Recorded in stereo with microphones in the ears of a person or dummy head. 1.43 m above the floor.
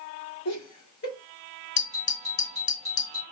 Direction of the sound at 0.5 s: 85° left.